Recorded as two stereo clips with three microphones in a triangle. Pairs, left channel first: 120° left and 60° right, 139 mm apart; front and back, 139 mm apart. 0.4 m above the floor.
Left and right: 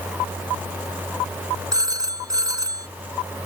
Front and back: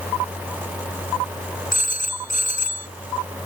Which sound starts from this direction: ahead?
A phone ringing, at 1.7 s.